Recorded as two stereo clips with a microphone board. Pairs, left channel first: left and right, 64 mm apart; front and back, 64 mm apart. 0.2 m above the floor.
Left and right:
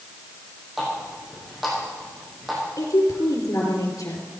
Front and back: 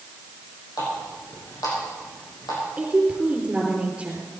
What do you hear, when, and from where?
0.8 s a running tap: straight ahead, 6 m
2.8 s a woman speaking: 110° left, 4.5 m